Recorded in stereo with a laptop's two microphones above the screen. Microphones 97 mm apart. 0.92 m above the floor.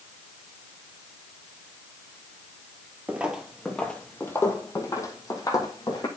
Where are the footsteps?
15° right (ahead or behind), 0.9 m; by 6.1 s 40° left (ahead or behind), 2 m.